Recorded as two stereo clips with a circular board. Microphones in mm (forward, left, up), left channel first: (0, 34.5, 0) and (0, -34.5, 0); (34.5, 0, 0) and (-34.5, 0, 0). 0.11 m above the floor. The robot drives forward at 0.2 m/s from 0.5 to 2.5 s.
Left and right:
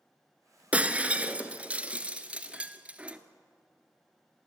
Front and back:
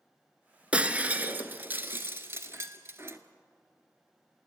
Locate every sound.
0.7 s breaking glass: 135° right, 0.9 m; by 3.2 s 155° right, 1.1 m